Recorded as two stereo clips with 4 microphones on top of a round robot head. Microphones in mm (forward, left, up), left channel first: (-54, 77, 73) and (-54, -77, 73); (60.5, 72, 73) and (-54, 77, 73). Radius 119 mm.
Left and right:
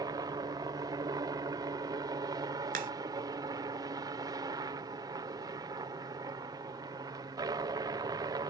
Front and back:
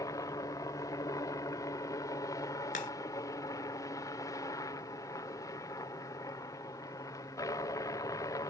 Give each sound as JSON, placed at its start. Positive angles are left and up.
{"t": 0.0, "sound": "a helicopter", "azimuth_deg": -40}
{"t": 2.7, "sound": "a crack", "azimuth_deg": -40}